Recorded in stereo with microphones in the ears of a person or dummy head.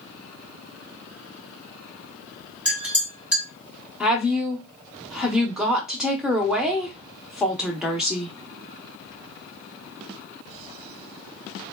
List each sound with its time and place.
2.6 s a clink: 10° right (ahead or behind), 0.6 m
4.0 s a woman speaking: 5° right (ahead or behind), 0.7 m